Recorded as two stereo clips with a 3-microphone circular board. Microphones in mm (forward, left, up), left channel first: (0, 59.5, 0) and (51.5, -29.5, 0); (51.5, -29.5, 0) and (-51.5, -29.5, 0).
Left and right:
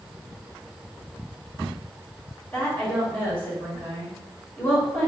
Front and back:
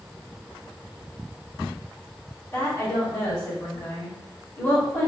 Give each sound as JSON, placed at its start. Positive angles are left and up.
{"t": 2.5, "sound": "a woman speaking", "azimuth_deg": 55, "distance_m": 1.8}